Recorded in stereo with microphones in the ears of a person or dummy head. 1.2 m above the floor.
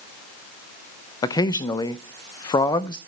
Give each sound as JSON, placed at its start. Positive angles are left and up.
{"t": 1.2, "sound": "a man speaking", "side_deg": 30, "distance_m": 0.5}